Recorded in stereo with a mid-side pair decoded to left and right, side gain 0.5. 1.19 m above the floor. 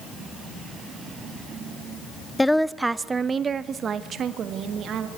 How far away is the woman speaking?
About 0.6 m.